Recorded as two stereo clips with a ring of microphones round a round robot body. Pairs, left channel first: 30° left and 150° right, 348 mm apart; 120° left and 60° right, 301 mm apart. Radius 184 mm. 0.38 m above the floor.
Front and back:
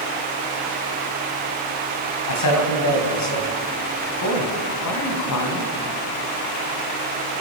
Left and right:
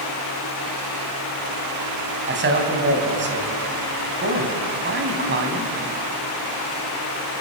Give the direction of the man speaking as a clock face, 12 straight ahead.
12 o'clock.